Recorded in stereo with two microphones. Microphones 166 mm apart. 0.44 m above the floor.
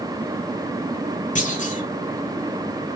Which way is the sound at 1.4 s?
50° left (ahead or behind).